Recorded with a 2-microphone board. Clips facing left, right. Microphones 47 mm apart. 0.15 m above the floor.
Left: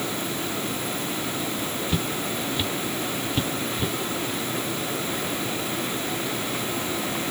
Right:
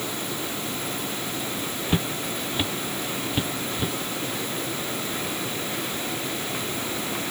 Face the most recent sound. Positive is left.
turn(degrees=-5)  # may be behind; listen again after turning